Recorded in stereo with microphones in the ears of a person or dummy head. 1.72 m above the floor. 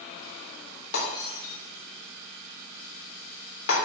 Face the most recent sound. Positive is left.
turn(degrees=65)  # may be behind; listen again after turning